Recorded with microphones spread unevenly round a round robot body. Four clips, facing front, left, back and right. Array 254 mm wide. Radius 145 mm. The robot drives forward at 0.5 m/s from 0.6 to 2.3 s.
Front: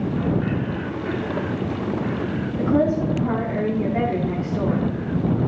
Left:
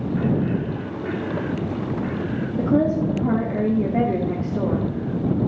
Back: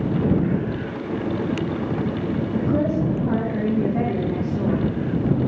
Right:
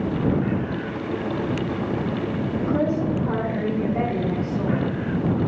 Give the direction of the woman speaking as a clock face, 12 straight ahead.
9 o'clock.